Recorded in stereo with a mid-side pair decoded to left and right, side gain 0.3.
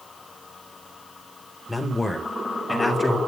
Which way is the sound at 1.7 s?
25° left.